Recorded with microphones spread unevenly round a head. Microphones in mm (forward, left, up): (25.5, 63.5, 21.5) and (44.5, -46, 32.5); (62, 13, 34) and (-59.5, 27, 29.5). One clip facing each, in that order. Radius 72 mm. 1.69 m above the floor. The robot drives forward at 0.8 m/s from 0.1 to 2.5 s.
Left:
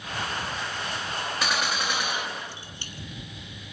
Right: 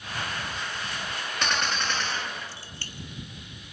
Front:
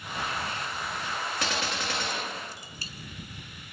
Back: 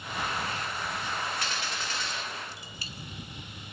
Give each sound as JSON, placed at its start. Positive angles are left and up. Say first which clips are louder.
{"t": 1.4, "sound": "a gunshot", "louder": "right 1 dB, front 4 dB", "azimuth_deg": 15, "distance_m": 1.8}